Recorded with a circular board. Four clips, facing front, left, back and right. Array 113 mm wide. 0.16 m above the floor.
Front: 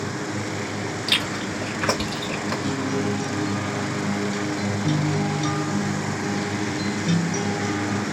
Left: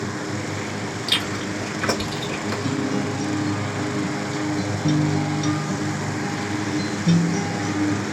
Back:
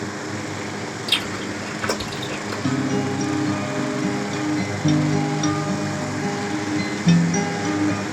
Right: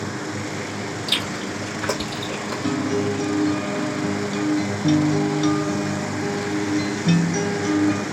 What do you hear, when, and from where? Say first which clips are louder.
1.1 s chewing: left 1 dB, even; 30° left, 2.5 m
2.6 s a guitar: right 4 dB, back 5 dB; 150° right, 0.8 m